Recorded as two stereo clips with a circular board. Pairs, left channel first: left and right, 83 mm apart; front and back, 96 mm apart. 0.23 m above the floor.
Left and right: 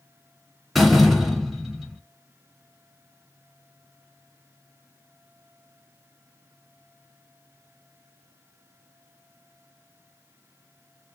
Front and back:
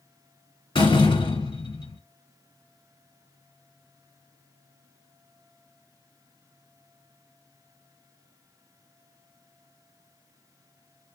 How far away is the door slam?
About 1.6 m.